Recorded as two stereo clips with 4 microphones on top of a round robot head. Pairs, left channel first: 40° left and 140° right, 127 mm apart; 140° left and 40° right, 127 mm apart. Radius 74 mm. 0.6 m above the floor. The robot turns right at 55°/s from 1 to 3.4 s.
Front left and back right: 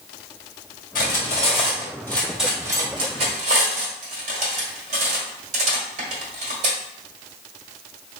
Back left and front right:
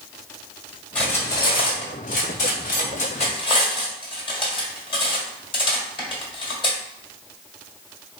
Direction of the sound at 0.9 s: 60° left.